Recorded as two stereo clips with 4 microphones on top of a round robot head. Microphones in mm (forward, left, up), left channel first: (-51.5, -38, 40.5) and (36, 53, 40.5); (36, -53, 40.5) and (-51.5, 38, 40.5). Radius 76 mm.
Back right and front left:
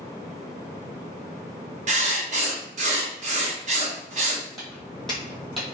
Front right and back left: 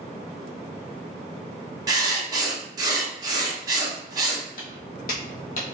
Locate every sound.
1.9 s writing: 70° left, 1.1 m
4.6 s footsteps: 50° right, 1.5 m; by 5.8 s 40° right, 1.0 m